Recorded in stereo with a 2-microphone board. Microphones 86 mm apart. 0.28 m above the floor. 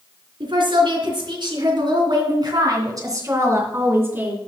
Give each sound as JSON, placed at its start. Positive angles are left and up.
{"t": 0.4, "sound": "a woman speaking", "side_deg": -70, "distance_m": 3.5}